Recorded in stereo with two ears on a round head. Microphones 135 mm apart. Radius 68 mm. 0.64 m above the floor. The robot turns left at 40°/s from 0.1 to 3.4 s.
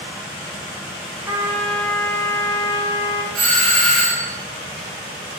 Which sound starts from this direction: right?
A doorbell, at 3.3 s.